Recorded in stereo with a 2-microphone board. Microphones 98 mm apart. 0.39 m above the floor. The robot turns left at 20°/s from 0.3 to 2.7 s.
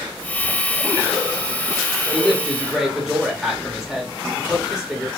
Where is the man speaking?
Centre (ahead or behind), 1.3 m; by 5.1 s 5° right (ahead or behind), 1.3 m.